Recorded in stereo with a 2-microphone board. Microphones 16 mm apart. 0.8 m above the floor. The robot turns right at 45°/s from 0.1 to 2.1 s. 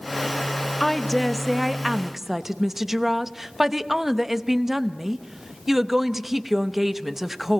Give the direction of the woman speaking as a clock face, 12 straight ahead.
7 o'clock.